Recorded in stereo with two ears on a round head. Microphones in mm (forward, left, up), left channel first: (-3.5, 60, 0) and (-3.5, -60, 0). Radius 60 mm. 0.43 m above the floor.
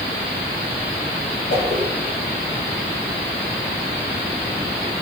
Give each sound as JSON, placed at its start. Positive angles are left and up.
{"t": 1.5, "sound": "a whoosh", "side_deg": 85, "distance_m": 9.0}